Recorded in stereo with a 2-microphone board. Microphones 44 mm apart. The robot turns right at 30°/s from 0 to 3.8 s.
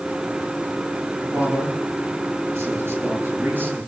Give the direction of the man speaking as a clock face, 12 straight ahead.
4 o'clock.